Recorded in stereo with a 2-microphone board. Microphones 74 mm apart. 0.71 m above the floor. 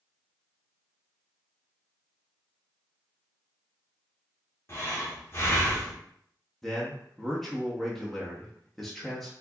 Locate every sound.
4.7 s breathing: 35° left (ahead or behind), 1.4 m
6.6 s a man speaking: 5° left (ahead or behind), 0.8 m